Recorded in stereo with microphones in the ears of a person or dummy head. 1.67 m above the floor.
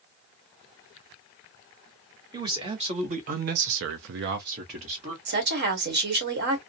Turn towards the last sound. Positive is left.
turn(degrees=-55)  # may be behind; listen again after turning